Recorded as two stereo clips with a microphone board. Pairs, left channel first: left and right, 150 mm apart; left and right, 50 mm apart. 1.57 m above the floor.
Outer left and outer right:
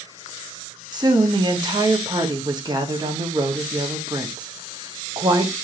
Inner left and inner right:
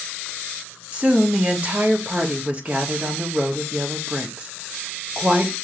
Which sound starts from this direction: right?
A woman speaking, at 0.9 s.